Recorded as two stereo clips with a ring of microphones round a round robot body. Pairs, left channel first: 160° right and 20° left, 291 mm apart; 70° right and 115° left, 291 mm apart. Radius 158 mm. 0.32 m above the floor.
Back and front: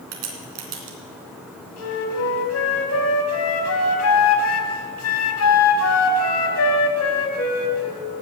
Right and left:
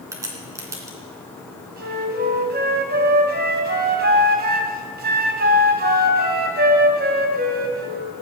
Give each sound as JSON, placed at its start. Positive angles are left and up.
{"t": 0.1, "sound": "a crack", "azimuth_deg": 30, "distance_m": 3.0}
{"t": 1.8, "sound": "a flute", "azimuth_deg": 170, "distance_m": 2.0}